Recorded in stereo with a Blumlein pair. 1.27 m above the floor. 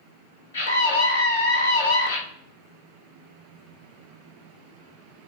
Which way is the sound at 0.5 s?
60° left.